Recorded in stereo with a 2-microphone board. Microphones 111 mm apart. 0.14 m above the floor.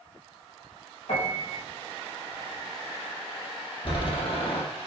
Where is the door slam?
50° left (ahead or behind), 3.5 m.